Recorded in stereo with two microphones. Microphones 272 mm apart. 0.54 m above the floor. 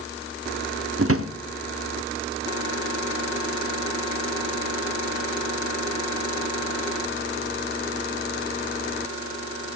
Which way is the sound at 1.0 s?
55° right (ahead or behind).